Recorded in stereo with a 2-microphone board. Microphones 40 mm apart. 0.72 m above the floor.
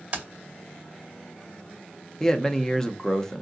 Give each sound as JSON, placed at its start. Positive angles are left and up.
{"t": 0.1, "sound": "keys jangling", "side_deg": -35, "distance_m": 2.5}
{"t": 2.2, "sound": "a man speaking", "side_deg": 15, "distance_m": 0.7}